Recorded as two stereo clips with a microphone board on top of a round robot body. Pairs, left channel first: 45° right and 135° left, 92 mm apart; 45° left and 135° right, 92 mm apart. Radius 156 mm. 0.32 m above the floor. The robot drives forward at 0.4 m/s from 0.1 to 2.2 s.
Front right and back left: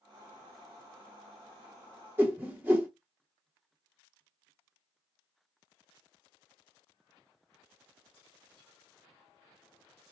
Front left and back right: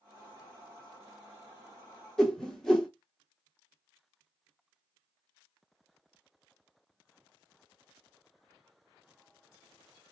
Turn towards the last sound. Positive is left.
turn(degrees=120)